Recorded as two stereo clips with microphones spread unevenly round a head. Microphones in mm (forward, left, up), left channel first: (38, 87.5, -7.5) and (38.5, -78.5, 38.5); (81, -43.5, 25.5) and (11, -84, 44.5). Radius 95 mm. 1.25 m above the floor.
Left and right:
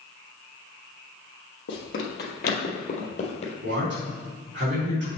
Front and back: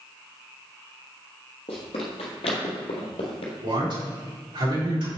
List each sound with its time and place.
1.7 s running footsteps: 75° left, 2.5 m; by 3.5 s 30° left, 2.5 m
3.6 s a man speaking: 130° right, 3.5 m